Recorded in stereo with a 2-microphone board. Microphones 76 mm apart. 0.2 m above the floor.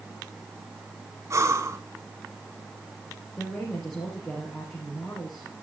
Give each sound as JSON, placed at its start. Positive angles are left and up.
{"t": 1.3, "sound": "breathing", "side_deg": -40, "distance_m": 1.0}
{"t": 3.4, "sound": "a woman speaking", "side_deg": 10, "distance_m": 5.0}